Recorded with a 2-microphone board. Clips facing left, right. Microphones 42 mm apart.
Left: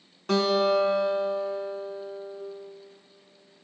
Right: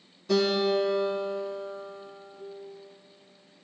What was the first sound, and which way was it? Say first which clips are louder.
A guitar: left 2 dB; 75° left (ahead or behind).